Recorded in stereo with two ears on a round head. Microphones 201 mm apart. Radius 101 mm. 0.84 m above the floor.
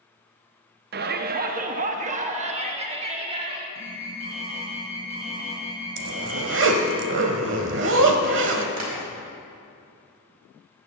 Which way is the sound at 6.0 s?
60° right (ahead or behind).